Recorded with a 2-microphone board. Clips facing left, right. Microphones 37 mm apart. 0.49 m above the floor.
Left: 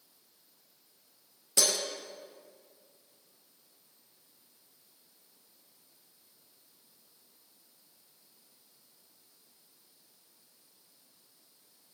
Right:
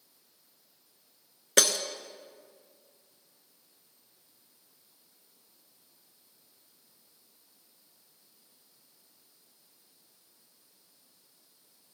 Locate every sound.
1.6 s breaking glass: 75° right (ahead or behind), 1.2 m